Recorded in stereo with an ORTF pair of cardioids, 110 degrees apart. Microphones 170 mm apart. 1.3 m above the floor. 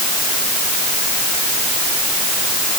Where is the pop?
I don't hear a pop.